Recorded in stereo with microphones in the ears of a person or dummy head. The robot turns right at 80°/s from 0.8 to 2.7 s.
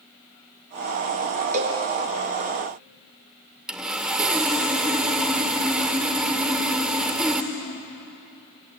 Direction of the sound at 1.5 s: 40° right (ahead or behind).